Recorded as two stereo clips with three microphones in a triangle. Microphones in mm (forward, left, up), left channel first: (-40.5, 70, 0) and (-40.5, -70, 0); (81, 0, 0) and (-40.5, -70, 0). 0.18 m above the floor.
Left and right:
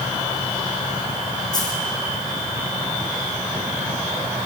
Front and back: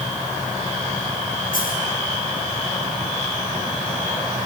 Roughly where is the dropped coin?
Ahead left.